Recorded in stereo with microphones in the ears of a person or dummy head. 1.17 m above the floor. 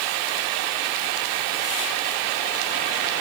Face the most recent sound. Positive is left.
No sound to turn to.